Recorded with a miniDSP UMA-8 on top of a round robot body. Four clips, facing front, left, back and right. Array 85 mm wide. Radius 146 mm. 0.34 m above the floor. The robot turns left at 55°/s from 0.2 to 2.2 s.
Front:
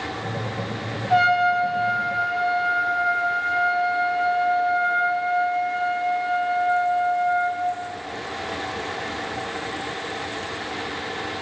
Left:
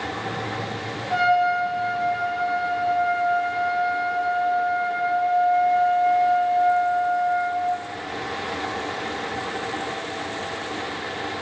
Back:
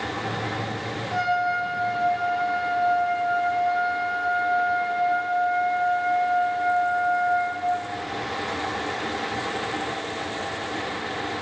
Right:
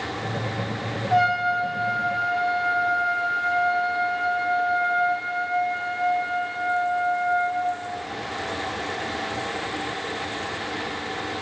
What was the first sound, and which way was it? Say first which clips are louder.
A trumpet: left 2 dB, front 6 dB; 10° left.